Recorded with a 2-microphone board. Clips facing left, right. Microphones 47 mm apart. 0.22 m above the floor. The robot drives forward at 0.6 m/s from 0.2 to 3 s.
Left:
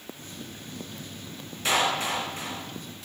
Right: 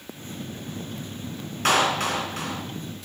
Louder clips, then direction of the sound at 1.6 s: Right 4 dB; 60° right (ahead or behind).